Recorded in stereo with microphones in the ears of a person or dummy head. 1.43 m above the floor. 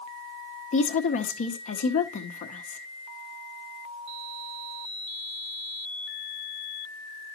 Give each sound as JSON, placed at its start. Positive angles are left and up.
{"t": 0.7, "sound": "a woman speaking", "side_deg": 45, "distance_m": 0.8}